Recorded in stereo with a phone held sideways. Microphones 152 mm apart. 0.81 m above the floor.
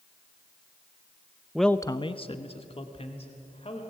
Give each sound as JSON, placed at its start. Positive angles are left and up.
{"t": 1.6, "sound": "a man speaking", "side_deg": -5, "distance_m": 0.6}